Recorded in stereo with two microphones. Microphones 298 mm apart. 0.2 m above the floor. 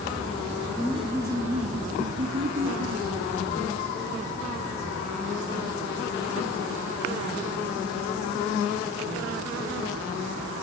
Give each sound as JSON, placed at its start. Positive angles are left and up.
{"t": 0.8, "sound": "laughter", "side_deg": 10, "distance_m": 1.4}